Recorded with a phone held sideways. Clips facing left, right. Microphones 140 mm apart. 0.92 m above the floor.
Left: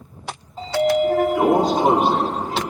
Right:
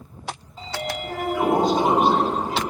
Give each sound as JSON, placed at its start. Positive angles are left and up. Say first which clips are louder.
{"t": 0.6, "sound": "a sliding door", "louder": "left 14 dB", "side_deg": 40, "distance_m": 1.7}